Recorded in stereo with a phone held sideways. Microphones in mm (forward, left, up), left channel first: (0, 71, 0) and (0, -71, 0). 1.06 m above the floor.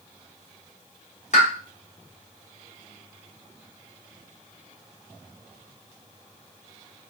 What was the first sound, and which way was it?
A pop, 55° left (ahead or behind).